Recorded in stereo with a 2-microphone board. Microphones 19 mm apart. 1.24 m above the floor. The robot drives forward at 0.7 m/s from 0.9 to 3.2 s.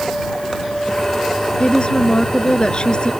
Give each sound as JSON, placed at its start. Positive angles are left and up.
{"t": 1.6, "sound": "a woman speaking", "side_deg": 50}